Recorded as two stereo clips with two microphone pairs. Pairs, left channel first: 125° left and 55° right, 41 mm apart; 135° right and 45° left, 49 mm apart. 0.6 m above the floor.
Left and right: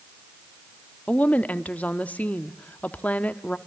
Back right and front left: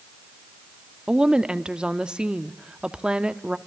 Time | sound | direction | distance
1.1 | a woman speaking | 105° left | 1.2 m